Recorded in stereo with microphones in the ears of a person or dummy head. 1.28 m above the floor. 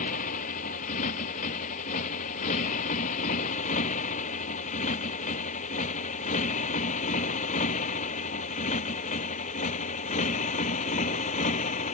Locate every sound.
0.0 s a motorcycle: 45° left (ahead or behind); by 11.9 s 40° left (ahead or behind)